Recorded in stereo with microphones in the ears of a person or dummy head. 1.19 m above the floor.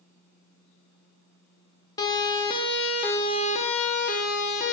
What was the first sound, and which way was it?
A siren, 25° left (ahead or behind).